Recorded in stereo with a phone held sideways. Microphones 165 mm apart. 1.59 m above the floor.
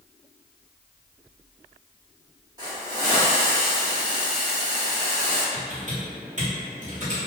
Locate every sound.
2.6 s a hiss: 20° right (ahead or behind), 1.2 m
5.5 s typing on a keyboard: 45° right (ahead or behind), 1.7 m